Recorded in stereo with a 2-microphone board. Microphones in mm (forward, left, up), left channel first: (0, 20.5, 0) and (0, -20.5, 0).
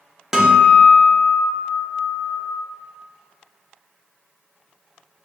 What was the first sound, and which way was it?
A guitar, 10° right (ahead or behind).